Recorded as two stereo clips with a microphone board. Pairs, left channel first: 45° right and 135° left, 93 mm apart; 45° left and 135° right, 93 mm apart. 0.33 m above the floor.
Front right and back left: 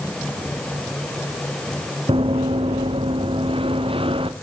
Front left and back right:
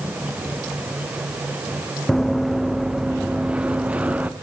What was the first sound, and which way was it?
Running footsteps, 135° left.